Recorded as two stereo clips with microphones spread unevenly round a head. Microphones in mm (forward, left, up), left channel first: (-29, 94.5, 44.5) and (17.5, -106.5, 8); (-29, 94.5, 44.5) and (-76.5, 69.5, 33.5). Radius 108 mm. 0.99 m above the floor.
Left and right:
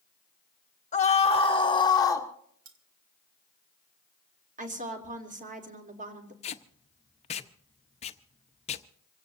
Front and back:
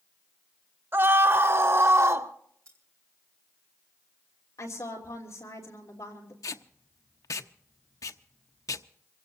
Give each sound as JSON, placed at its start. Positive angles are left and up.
{"t": 0.9, "sound": "a scream", "azimuth_deg": 165, "distance_m": 2.0}
{"t": 2.6, "sound": "cutlery clinking", "azimuth_deg": -95, "distance_m": 1.9}
{"t": 4.6, "sound": "a woman speaking", "azimuth_deg": -25, "distance_m": 3.0}
{"t": 6.4, "sound": "tape being pulled", "azimuth_deg": 40, "distance_m": 0.8}